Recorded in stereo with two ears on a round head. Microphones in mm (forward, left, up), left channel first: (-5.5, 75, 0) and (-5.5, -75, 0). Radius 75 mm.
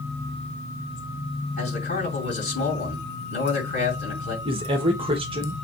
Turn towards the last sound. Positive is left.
turn(degrees=-35)  # may be behind; listen again after turning